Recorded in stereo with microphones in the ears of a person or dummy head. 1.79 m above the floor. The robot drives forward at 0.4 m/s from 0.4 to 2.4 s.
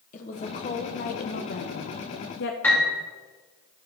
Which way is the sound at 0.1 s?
40° left (ahead or behind).